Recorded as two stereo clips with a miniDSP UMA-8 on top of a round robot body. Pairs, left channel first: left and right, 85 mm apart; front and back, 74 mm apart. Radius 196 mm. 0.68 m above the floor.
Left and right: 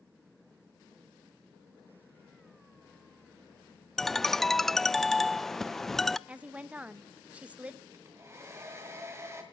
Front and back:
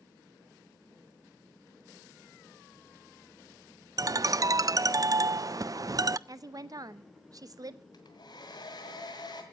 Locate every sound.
4.0 s a ringtone: 175° left, 0.5 m
6.3 s a woman speaking: 160° right, 1.1 m
7.9 s a hair dryer: 30° right, 1.9 m